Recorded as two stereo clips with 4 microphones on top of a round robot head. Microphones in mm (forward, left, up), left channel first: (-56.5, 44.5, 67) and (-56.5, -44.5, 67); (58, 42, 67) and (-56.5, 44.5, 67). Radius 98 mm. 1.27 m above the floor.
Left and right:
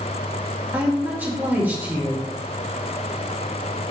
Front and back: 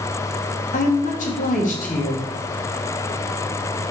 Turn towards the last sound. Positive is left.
turn(degrees=-15)